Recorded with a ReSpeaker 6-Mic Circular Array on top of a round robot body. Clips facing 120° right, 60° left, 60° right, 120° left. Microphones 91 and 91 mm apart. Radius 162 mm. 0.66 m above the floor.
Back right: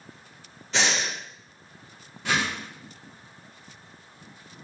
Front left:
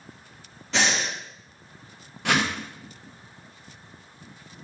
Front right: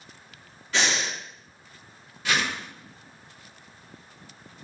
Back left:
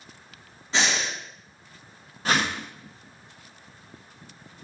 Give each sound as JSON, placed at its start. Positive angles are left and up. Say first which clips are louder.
{"t": 0.7, "sound": "breathing", "louder": "front left 1 dB, back left 1 dB", "azimuth_deg": 50, "distance_m": 1.2}
{"t": 2.2, "sound": "a whoosh", "louder": "front left 3 dB, back left 2 dB", "azimuth_deg": 70, "distance_m": 0.6}